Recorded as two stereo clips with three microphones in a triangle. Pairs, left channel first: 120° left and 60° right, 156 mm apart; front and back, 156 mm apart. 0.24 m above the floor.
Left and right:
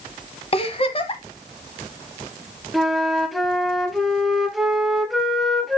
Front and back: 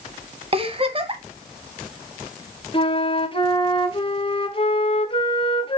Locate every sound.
0.5 s a giggle: 150° left, 1.1 m
2.7 s a flute: 30° left, 0.8 m